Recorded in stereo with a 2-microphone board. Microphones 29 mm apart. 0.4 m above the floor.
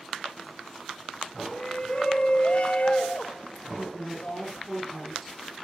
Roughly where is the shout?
Left.